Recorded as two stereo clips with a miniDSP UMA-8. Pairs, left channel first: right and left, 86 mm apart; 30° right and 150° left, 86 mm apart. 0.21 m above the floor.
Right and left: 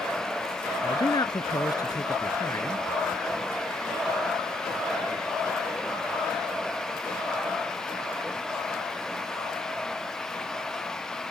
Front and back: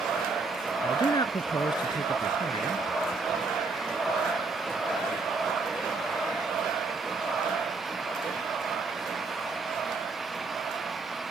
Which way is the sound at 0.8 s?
65° right.